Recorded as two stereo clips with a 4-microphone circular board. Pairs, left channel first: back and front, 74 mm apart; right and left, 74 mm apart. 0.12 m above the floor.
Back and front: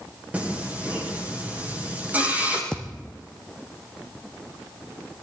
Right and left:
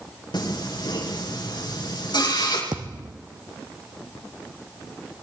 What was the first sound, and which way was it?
Singing, 70° right.